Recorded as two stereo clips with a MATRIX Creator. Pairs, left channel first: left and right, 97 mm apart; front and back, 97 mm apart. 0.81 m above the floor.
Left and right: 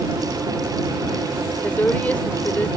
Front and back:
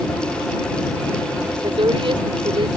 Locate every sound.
1.6 s a woman speaking: 160° left